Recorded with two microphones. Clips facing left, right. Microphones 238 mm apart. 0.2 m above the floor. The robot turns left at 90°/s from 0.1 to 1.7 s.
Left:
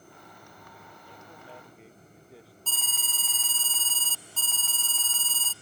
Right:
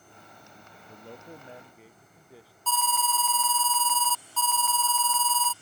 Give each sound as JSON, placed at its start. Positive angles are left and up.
{"t": 0.9, "sound": "a man speaking", "azimuth_deg": -105}
{"t": 2.7, "sound": "an alarm", "side_deg": 30}